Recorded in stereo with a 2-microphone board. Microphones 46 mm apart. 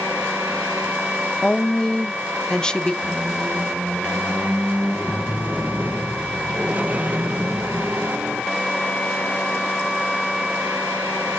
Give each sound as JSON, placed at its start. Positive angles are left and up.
{"t": 1.4, "sound": "a woman speaking", "side_deg": 15, "distance_m": 0.5}
{"t": 3.0, "sound": "a squeak", "side_deg": -35, "distance_m": 0.5}